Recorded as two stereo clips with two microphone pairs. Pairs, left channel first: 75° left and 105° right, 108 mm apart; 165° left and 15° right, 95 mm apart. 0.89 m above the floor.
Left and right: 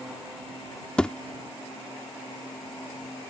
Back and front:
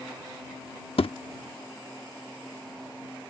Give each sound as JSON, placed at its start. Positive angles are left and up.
{"t": 1.0, "sound": "a thud", "azimuth_deg": 160}